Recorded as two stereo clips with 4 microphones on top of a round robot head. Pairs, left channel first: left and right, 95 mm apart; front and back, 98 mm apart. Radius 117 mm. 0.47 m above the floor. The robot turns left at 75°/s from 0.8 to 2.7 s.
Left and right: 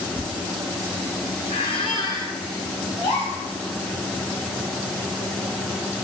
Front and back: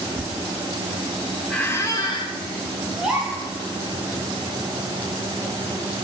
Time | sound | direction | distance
1.5 | a squeak | 85° left | 1.1 m
3.0 | a gasp | 100° left | 2 m